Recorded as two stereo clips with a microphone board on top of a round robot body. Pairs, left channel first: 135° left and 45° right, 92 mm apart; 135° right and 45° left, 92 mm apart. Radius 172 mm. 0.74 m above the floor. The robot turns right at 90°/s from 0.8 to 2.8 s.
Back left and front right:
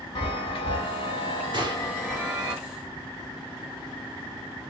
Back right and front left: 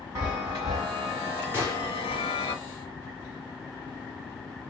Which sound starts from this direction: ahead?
A gunshot, at 1.5 s.